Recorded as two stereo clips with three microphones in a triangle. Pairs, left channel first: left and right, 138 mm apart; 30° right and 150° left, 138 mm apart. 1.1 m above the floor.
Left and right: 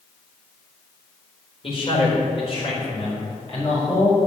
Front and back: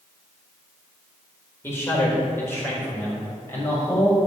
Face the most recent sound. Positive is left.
turn(degrees=45)